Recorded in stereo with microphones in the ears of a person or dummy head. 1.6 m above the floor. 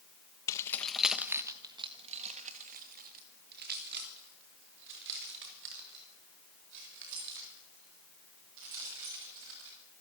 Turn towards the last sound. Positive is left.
turn(degrees=-70)  # may be behind; listen again after turning